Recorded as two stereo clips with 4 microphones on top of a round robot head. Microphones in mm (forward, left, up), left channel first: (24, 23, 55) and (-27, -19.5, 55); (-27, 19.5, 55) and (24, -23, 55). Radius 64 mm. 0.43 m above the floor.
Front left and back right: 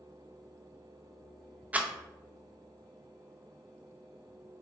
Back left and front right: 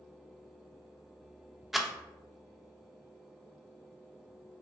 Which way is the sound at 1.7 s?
120° right.